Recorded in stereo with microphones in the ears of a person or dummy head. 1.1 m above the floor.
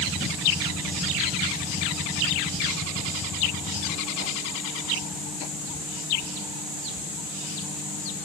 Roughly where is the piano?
I don't hear a piano.